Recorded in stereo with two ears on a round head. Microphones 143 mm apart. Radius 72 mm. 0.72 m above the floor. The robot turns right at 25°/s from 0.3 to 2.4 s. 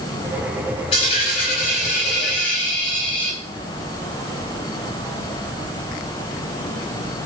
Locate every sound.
0.9 s a dropped coin: 35° left, 9 m; by 3.4 s 75° left, 9 m